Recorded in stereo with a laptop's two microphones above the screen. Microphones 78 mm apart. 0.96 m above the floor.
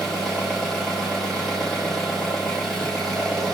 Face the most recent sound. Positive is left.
turn(degrees=0)  # may be behind; listen again after turning